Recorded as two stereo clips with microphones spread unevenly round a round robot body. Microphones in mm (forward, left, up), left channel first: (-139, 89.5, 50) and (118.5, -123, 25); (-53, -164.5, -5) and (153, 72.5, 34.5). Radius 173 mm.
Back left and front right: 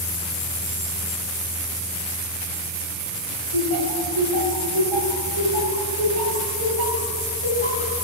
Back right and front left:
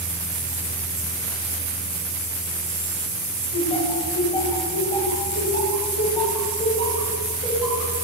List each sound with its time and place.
3.5 s laughter: 60° right, 4.5 m